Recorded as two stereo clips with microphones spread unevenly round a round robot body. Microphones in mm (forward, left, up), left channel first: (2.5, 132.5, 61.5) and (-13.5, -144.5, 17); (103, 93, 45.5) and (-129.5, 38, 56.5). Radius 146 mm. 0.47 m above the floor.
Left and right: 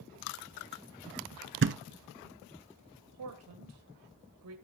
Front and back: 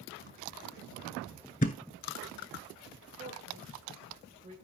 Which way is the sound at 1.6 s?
45° right.